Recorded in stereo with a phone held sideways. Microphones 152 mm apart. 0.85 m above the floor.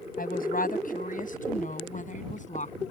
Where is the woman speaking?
75° left (ahead or behind); by 2.7 s 55° left (ahead or behind).